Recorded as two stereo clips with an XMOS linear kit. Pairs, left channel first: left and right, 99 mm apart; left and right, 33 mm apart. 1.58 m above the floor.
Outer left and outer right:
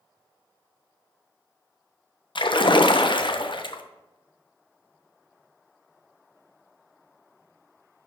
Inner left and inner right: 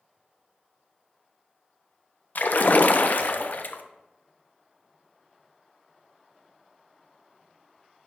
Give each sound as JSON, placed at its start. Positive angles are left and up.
{"t": 2.4, "sound": "a splash", "side_deg": 55, "distance_m": 0.5}